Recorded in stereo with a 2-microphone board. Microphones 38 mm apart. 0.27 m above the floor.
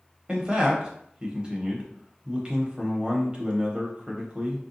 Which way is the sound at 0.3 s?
25° right (ahead or behind).